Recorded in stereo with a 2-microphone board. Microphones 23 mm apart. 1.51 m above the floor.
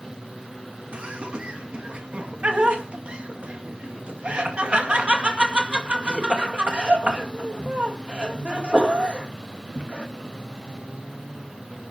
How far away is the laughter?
About 2 m.